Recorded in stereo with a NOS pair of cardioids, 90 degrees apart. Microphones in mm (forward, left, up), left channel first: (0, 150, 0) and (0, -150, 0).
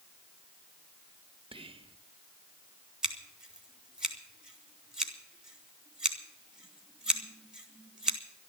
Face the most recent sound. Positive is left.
turn(degrees=-5)